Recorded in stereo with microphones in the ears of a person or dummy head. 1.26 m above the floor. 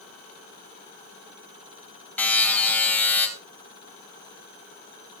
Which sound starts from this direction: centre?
A buzzer, at 2.2 s.